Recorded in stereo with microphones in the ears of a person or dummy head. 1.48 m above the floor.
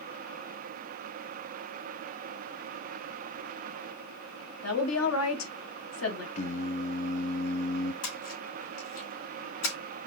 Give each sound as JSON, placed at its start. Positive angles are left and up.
{"t": 4.6, "sound": "a woman speaking", "side_deg": 80, "distance_m": 1.4}
{"t": 6.3, "sound": "singing", "side_deg": 45, "distance_m": 0.6}
{"t": 8.0, "sound": "a splash", "side_deg": 85, "distance_m": 3.5}